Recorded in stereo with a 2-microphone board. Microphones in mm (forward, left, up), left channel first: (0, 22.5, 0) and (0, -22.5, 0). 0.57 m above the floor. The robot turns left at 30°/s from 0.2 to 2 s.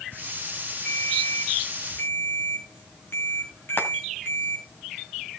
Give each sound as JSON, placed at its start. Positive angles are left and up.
{"t": 0.8, "sound": "a ringtone", "azimuth_deg": 160, "distance_m": 4.0}
{"t": 3.8, "sound": "frying", "side_deg": 50, "distance_m": 2.5}